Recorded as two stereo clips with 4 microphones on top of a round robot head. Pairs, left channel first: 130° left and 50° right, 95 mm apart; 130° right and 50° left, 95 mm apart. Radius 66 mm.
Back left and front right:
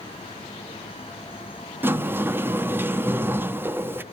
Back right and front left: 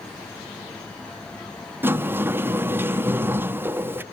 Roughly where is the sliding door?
Ahead.